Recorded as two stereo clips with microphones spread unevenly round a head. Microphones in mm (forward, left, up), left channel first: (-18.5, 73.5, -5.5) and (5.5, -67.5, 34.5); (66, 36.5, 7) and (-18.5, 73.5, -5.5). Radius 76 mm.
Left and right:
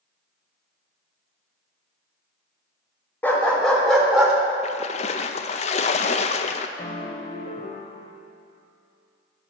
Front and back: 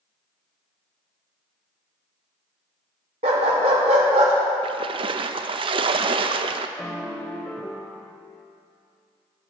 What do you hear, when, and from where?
3.2 s a dog barking: 175° right, 1.6 m; by 4.3 s 155° right, 2 m
4.6 s a splash: 150° left, 0.6 m
6.8 s a piano: 35° left, 1.2 m